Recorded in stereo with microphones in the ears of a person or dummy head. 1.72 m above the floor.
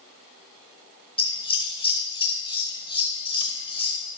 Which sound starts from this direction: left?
Scissors, at 1.2 s.